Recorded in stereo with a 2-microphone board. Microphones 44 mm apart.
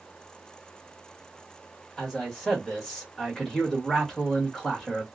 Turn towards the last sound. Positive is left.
turn(degrees=5)  # may be behind; listen again after turning